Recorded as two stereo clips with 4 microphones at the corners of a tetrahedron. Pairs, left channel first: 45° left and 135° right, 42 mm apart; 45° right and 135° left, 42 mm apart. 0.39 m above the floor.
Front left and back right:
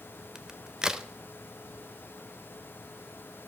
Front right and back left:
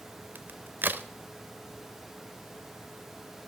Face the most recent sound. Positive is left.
turn(degrees=155)